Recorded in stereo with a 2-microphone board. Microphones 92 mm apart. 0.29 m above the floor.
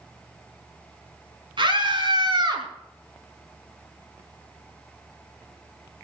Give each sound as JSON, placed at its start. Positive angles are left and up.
{"t": 1.6, "sound": "a scream", "side_deg": -65, "distance_m": 3.5}